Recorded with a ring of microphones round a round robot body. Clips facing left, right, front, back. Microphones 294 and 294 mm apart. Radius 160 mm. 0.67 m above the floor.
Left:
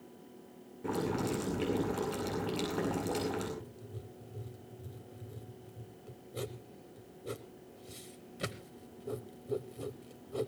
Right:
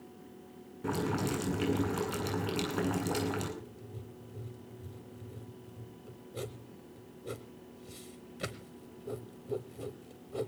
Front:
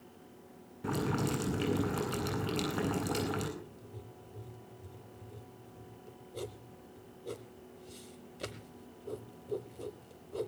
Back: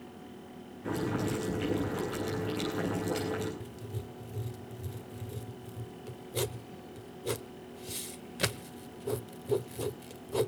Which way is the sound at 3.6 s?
175° left.